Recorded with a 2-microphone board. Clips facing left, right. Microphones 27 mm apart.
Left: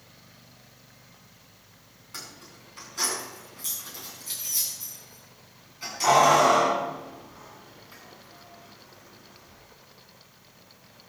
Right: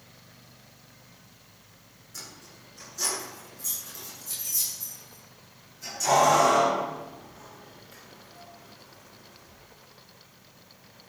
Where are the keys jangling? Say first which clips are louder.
Left 2 dB; 65° left (ahead or behind), 8 m; by 9.6 s 35° left (ahead or behind), 8 m.